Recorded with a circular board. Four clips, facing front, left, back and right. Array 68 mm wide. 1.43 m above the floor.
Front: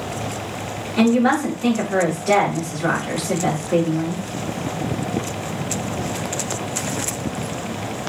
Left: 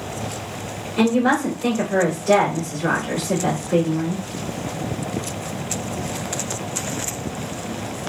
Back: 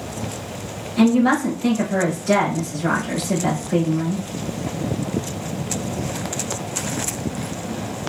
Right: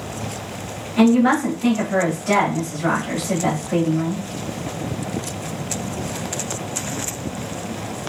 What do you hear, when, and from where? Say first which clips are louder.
1.0 s a woman speaking: right 3 dB, even; 35° right, 2.5 m